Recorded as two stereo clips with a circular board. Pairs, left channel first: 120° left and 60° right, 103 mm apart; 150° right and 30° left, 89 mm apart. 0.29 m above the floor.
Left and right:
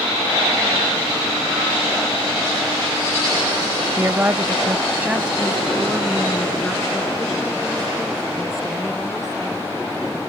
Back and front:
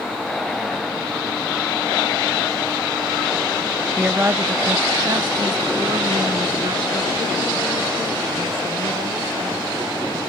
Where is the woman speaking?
35° right; by 10.2 s 30° left.